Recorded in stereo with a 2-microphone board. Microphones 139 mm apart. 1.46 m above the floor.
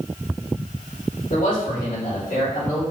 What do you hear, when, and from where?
1.3 s a man speaking: 75° left (ahead or behind), 3.5 m; by 2.8 s 70° left (ahead or behind), 5 m